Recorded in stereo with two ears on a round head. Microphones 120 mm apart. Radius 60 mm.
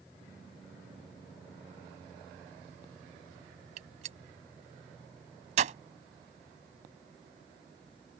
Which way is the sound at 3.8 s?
60° right (ahead or behind).